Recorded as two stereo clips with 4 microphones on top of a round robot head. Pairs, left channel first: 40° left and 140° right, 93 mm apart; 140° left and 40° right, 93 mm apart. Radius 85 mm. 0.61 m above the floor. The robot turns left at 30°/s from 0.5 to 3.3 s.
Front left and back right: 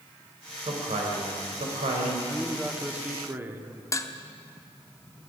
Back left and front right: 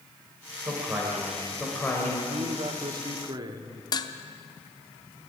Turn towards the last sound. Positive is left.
turn(degrees=95)